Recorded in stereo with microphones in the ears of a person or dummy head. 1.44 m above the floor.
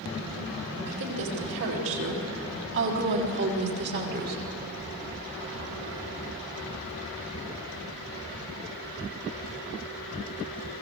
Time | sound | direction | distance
0.9 | a woman speaking | 75° right (ahead or behind) | 4.5 m